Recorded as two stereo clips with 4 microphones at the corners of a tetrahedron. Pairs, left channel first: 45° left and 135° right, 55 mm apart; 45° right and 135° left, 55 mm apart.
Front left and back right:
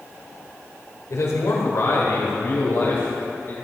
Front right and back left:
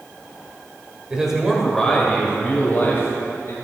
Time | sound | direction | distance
1.1 | a man speaking | 60° left | 2.5 m